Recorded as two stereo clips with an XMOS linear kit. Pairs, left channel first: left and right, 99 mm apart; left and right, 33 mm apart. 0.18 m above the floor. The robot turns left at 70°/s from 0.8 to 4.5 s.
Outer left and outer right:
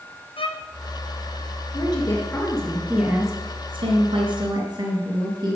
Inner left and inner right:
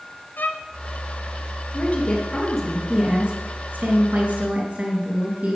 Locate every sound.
0.4 s a violin: 65° left (ahead or behind), 1.0 m
1.7 s a woman speaking: 65° left, 3 m; by 5.5 s 125° right, 3 m